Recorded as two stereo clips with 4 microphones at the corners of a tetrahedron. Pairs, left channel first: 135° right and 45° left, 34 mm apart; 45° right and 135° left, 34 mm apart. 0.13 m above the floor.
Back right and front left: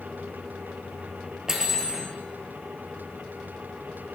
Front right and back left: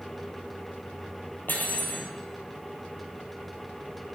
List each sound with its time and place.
1.5 s cutlery clinking: 30° right, 1.9 m